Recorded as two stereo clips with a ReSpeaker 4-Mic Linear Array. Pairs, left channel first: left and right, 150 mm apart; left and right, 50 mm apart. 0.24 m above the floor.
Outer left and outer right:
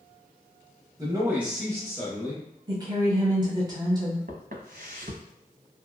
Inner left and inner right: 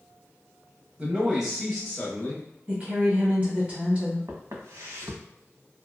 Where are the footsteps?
80° right, 1.0 m.